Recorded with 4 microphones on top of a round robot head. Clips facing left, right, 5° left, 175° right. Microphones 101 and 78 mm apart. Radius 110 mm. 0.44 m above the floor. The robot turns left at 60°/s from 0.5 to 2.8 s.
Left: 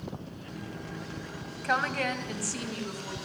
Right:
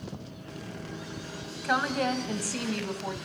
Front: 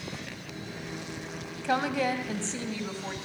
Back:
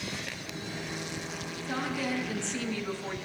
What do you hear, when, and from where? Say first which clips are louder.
1.6 s a woman speaking: right 2 dB, front 6 dB; straight ahead, 3 m; by 3.1 s 70° right, 3 m